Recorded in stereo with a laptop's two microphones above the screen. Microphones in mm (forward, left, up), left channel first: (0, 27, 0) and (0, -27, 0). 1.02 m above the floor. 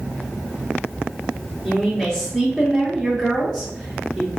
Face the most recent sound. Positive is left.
turn(degrees=5)  # may be behind; listen again after turning